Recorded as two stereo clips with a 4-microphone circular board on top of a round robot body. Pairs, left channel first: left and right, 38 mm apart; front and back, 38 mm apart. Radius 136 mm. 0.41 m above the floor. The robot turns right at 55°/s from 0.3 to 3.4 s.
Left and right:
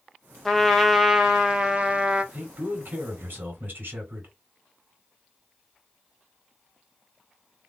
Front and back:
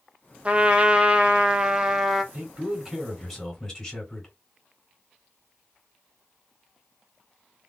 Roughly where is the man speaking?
Behind right.